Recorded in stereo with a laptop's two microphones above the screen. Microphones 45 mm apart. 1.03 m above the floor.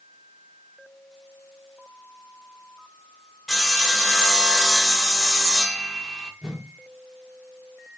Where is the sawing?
5° left (ahead or behind), 0.8 m.